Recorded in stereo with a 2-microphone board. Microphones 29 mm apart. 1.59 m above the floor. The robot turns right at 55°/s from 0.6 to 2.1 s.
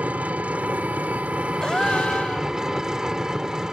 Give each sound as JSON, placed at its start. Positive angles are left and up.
{"t": 0.0, "sound": "an engine running", "azimuth_deg": -105}
{"t": 1.6, "sound": "a gasp", "side_deg": 25}